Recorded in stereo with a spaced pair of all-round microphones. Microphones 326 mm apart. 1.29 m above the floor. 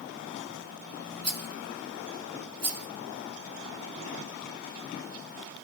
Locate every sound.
1.2 s a rattle: 50° right (ahead or behind), 0.6 m